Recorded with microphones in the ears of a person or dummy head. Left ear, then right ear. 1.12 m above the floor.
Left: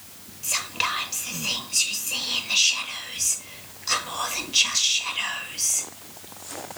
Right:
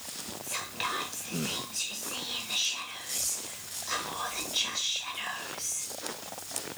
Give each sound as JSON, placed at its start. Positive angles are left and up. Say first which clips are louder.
{"t": 0.4, "sound": "whispering", "louder": "left 9 dB", "side_deg": 25, "distance_m": 0.5}